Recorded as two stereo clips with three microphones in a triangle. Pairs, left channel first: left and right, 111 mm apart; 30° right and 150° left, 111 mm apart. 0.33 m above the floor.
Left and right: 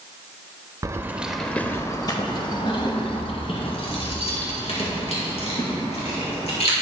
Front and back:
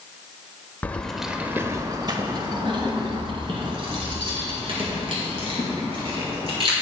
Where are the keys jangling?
90° right, 0.8 m; by 6.7 s 115° left, 4.5 m.